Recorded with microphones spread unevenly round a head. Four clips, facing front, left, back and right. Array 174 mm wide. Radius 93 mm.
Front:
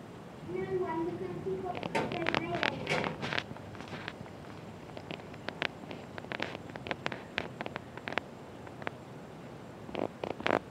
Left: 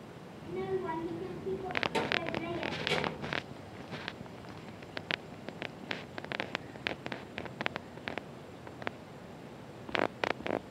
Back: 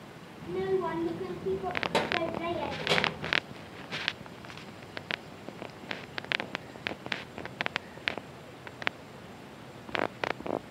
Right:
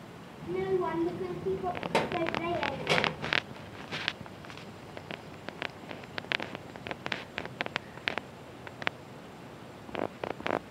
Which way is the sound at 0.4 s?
120° right.